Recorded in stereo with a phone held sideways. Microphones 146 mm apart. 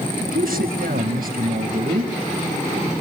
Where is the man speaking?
75° right (ahead or behind), 5.5 m.